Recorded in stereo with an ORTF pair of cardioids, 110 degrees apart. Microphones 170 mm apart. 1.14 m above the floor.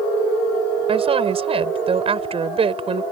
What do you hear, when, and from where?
0.9 s a woman speaking: 35° right